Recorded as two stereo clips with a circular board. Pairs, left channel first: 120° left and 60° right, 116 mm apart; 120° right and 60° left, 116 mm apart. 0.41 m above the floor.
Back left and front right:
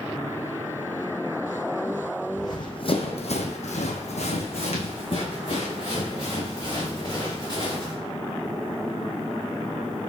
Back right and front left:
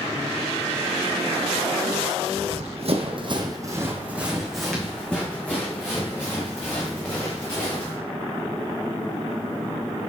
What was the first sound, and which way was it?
Running footsteps, 65° left.